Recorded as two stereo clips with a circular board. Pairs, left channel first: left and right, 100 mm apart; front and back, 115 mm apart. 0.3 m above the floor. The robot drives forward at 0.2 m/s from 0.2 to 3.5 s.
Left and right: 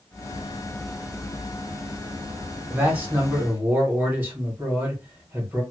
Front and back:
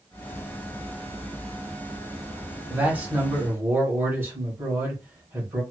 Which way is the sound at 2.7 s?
125° right.